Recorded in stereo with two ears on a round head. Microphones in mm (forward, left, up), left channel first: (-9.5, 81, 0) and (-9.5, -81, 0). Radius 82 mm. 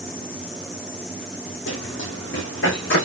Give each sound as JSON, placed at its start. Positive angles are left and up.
{"t": 1.7, "sound": "running footsteps", "side_deg": 75, "distance_m": 2.0}